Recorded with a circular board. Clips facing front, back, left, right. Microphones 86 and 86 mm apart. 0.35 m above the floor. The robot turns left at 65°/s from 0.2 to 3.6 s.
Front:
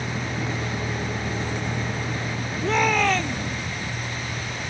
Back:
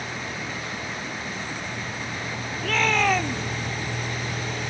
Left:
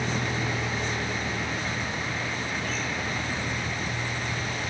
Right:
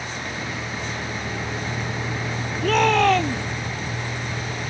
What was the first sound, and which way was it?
A vehicle, 60° left.